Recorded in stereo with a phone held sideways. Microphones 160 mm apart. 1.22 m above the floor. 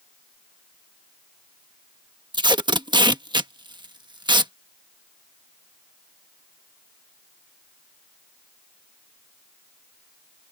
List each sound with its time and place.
2.3 s tape being pulled: 30° right (ahead or behind)